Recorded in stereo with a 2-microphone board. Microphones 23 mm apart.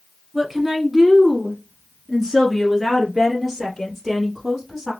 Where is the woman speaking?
15° right (ahead or behind), 1.4 m; by 4.9 s 10° right (ahead or behind), 3.5 m.